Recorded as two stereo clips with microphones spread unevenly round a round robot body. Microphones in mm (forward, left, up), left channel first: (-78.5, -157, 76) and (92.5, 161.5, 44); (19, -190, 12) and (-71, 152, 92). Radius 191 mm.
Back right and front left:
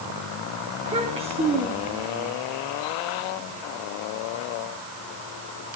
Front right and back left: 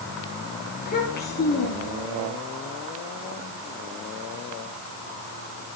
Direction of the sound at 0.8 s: 10° right.